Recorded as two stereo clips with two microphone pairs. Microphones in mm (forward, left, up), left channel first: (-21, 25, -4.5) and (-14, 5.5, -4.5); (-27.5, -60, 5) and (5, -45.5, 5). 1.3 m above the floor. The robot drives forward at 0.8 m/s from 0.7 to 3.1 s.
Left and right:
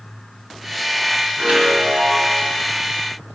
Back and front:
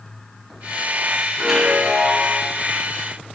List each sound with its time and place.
1.4 s a chime: 65° right, 4.5 m; by 2.5 s 80° right, 4.5 m